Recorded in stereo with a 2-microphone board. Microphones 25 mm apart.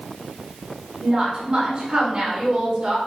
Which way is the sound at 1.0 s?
25° right (ahead or behind).